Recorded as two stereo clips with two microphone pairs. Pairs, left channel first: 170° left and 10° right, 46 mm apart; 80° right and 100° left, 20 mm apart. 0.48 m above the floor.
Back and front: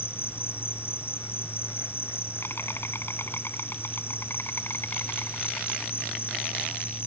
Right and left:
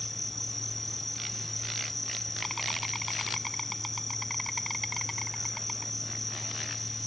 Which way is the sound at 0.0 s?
160° right.